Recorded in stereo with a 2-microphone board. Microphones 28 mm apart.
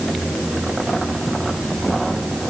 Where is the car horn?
No car horn in this recording.